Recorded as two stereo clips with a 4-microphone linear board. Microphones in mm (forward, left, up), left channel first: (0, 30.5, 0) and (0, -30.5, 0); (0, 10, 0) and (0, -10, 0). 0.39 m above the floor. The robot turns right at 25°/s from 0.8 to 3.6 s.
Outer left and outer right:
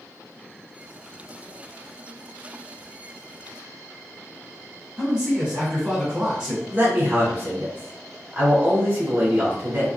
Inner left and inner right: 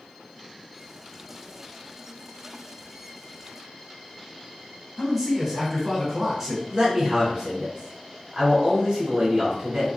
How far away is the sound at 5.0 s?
About 1.3 m.